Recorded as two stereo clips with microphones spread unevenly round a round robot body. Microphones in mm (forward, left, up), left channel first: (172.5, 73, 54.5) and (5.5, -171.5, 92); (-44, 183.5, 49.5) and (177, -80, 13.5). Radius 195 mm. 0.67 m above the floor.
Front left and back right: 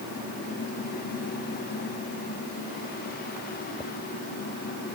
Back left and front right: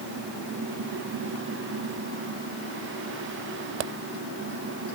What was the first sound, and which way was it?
Only background noise.